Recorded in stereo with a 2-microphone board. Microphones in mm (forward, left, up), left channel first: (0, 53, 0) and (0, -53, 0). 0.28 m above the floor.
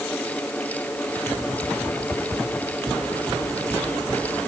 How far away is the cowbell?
I don't hear a cowbell.